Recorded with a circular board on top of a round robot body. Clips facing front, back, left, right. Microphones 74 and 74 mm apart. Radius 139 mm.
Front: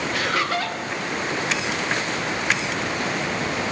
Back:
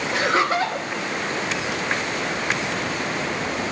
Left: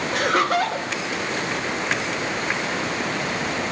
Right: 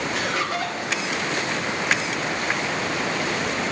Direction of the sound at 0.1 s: 120° left.